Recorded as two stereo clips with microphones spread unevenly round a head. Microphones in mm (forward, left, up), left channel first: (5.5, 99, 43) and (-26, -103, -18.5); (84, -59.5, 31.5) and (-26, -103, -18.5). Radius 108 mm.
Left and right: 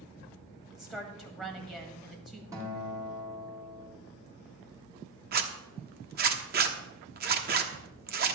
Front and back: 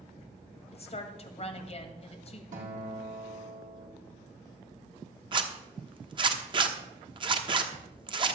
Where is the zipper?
130° right, 1.1 m.